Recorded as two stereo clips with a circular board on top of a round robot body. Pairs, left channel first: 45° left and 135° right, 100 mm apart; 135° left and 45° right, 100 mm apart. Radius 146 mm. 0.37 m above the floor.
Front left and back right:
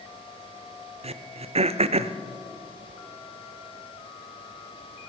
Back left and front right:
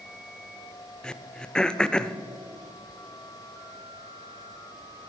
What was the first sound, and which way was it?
Throat clearing, 145° right.